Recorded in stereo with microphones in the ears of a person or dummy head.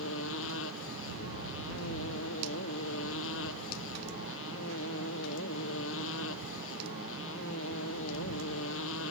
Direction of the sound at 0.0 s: 75° left (ahead or behind).